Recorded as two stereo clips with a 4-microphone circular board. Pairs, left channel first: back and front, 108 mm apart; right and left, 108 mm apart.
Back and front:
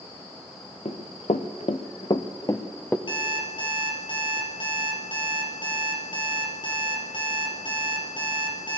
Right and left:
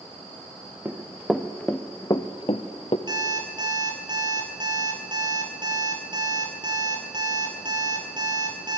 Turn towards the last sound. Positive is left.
turn(degrees=140)